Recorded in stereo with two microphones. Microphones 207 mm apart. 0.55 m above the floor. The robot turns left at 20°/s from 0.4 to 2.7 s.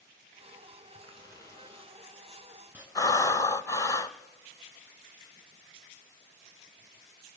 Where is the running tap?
25° left, 4.5 m; by 2.9 s 10° right, 4.5 m.